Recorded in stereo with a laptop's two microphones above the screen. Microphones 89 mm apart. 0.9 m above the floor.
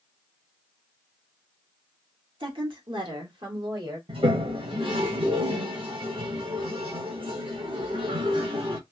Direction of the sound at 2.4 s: 60° right (ahead or behind).